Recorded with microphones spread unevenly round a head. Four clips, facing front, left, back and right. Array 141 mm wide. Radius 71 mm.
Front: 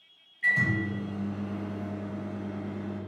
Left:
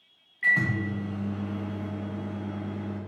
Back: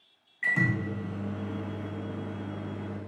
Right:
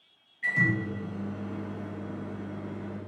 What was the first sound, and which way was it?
A microwave, 165° left.